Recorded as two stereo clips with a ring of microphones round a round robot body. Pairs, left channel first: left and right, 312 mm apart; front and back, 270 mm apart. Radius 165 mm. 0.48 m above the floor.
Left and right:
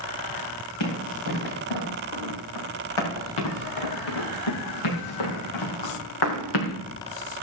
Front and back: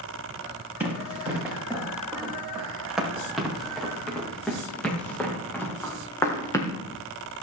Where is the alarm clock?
I don't hear an alarm clock.